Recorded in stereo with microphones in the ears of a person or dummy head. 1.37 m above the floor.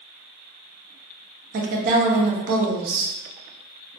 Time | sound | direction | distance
1.5 | a woman speaking | 50° right (ahead or behind) | 0.7 m